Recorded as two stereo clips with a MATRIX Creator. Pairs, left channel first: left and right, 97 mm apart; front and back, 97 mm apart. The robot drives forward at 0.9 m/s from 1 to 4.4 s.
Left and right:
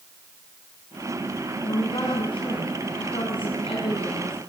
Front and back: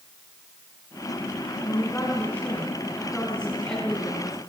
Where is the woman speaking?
65° left, 6 m; by 4.4 s 90° left, 5 m.